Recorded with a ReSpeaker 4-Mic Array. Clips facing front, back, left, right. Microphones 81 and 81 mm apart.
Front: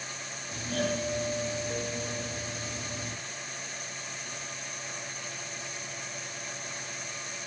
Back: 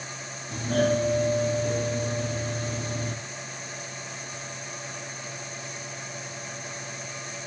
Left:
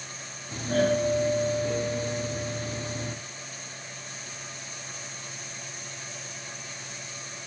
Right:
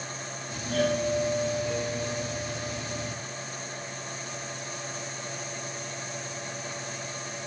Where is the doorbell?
140° left, 2 m.